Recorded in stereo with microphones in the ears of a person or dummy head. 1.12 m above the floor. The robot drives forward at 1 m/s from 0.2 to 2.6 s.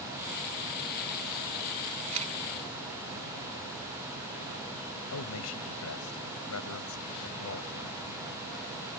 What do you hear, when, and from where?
2.1 s a camera shutter: 30° right (ahead or behind)
5.1 s a man speaking: 80° left